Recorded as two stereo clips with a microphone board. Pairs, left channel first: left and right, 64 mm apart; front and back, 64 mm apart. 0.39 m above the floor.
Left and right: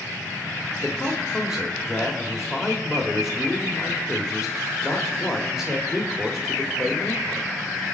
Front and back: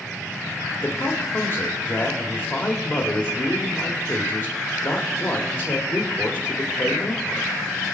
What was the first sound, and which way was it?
A man speaking, 10° right.